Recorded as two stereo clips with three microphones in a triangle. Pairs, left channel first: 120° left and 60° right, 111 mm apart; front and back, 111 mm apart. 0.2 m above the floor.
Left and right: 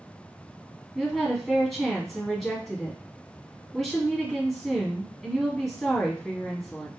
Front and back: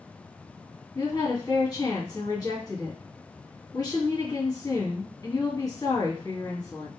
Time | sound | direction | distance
0.9 | a woman speaking | 30° left | 1.6 m